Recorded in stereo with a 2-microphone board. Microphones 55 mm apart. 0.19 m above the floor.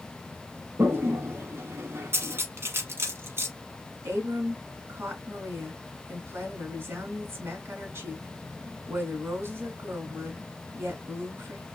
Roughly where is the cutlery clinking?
Right.